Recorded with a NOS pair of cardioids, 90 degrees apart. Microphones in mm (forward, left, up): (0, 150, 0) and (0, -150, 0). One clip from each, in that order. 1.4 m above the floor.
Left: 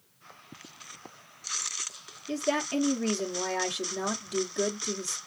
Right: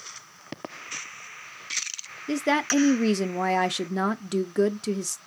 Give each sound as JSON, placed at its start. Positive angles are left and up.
{"t": 2.3, "sound": "a woman speaking", "azimuth_deg": -55, "distance_m": 0.7}